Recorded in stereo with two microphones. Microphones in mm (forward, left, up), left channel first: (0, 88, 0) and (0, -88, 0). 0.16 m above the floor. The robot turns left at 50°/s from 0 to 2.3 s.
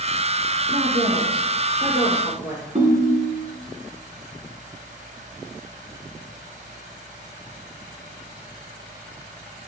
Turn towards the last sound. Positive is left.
turn(degrees=-35)  # may be behind; listen again after turning